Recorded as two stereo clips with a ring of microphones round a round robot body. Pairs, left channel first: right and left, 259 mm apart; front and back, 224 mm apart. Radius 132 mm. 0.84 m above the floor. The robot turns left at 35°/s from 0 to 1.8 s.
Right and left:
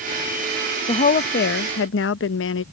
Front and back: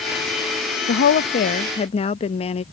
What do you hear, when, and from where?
0.9 s a woman speaking: 30° right; by 2.6 s 60° right